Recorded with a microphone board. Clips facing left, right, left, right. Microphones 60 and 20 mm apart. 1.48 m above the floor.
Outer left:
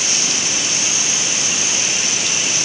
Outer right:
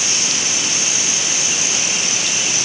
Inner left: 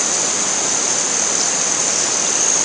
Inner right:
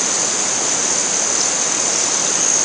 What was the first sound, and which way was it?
Only background noise.